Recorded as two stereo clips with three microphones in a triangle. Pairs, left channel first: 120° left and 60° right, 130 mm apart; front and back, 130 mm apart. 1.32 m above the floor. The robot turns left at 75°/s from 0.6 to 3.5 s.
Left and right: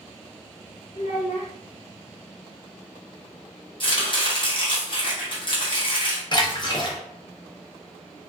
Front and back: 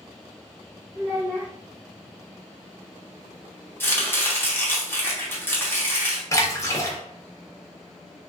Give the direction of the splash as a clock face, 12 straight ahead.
10 o'clock.